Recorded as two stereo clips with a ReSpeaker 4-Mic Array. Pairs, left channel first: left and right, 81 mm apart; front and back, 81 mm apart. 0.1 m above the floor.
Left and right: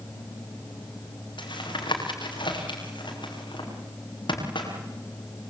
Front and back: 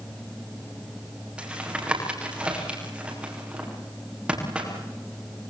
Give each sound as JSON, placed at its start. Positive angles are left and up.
{"t": 1.4, "sound": "tapping", "azimuth_deg": 105, "distance_m": 9.5}